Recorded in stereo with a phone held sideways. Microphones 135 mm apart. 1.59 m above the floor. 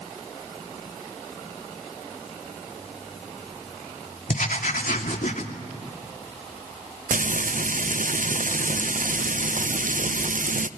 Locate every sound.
4.3 s writing: 70° left (ahead or behind), 2.5 m
7.1 s frying: 70° right (ahead or behind), 0.6 m